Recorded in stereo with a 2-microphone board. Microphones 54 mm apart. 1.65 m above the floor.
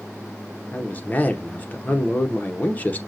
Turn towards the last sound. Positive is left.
turn(degrees=25)  # may be behind; listen again after turning